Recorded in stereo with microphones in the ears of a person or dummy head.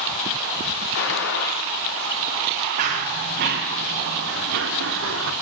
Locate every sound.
0.9 s a gunshot: 70° left (ahead or behind), 2.5 m
2.8 s running footsteps: 40° right (ahead or behind), 6 m; by 5.3 s 70° right (ahead or behind), 6 m